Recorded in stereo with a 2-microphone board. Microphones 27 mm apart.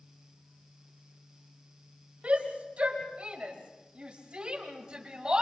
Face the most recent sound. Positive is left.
turn(degrees=-30)  # may be behind; listen again after turning